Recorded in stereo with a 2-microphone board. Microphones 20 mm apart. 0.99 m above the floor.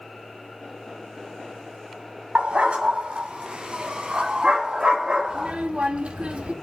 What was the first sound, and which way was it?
A dog barking, 75° right (ahead or behind).